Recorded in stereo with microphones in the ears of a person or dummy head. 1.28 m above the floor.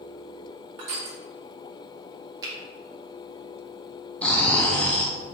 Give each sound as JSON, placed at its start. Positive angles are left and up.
{"t": 0.8, "sound": "crushing", "side_deg": -50, "distance_m": 0.8}
{"t": 2.4, "sound": "a finger snap", "side_deg": -20, "distance_m": 1.0}
{"t": 4.2, "sound": "snoring", "side_deg": 5, "distance_m": 0.6}